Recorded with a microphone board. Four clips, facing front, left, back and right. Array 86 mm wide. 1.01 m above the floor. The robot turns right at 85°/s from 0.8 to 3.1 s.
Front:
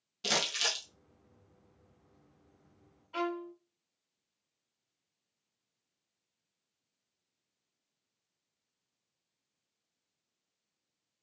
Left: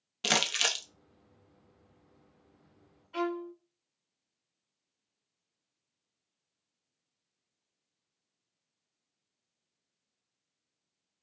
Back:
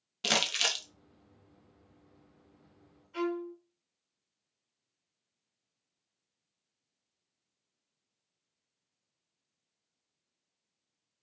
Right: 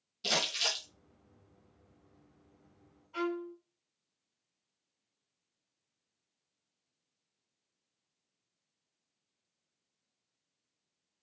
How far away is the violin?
About 1.1 m.